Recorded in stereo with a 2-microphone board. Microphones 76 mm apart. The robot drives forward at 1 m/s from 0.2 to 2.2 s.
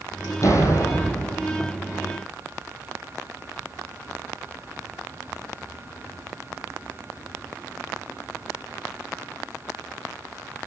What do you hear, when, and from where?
0.4 s a door slam: 45° left (ahead or behind), 4.5 m; by 1.4 s 40° left (ahead or behind), 5.5 m